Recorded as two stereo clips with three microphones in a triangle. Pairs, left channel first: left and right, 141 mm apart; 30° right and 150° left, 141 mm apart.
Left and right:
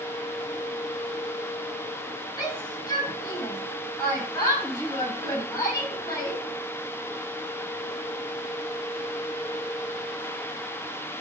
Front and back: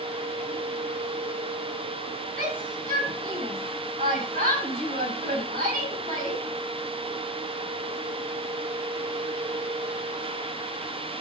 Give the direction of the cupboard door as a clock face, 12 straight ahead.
I don't hear a cupboard door.